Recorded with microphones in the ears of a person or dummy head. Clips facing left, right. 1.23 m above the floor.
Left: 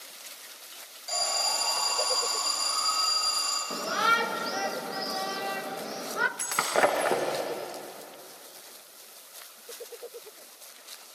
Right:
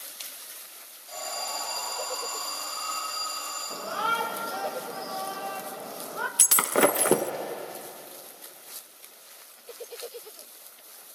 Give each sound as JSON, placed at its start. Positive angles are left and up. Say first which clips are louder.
{"t": 1.1, "sound": "an alarm", "louder": "left 3 dB", "side_deg": 85, "distance_m": 8.5}
{"t": 3.7, "sound": "a shout", "louder": "left 2 dB", "side_deg": 30, "distance_m": 1.2}
{"t": 6.4, "sound": "breaking glass", "louder": "right 3 dB", "side_deg": -50, "distance_m": 0.6}